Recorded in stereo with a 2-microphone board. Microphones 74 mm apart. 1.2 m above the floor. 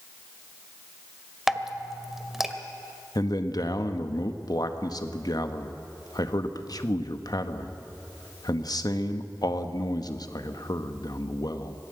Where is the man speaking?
60° left (ahead or behind), 1.5 m.